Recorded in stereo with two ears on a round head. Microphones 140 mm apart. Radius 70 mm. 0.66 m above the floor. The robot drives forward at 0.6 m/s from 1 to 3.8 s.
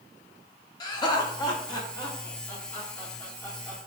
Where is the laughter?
30° left (ahead or behind), 0.8 m; by 3.8 s 10° left (ahead or behind), 1.8 m.